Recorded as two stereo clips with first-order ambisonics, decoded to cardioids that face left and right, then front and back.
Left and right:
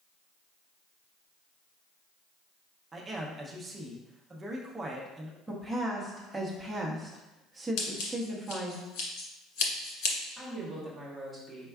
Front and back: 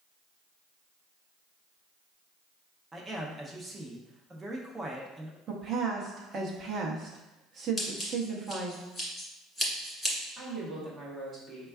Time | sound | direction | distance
2.9 | a man speaking | 130° right | 0.6 m
5.5 | a woman speaking | 170° right | 0.8 m
7.8 | scissors | 85° left | 1.8 m
10.4 | a woman speaking | straight behind | 1.1 m